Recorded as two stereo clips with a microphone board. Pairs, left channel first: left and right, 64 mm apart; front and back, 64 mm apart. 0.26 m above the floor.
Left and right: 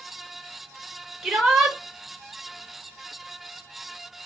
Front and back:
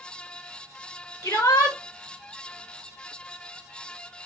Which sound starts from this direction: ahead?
A shout, at 1.2 s.